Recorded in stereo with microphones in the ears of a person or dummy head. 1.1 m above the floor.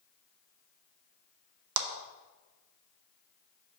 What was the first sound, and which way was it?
A clap, 70° right (ahead or behind).